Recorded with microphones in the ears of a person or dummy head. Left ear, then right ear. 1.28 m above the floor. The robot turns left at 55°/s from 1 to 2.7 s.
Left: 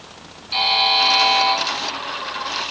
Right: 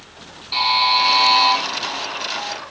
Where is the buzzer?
15° right, 6.5 m; by 1.6 s 45° right, 6.5 m.